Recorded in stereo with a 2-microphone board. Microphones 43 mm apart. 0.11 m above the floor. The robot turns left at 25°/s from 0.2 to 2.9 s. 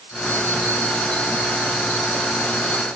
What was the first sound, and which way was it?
Only background noise.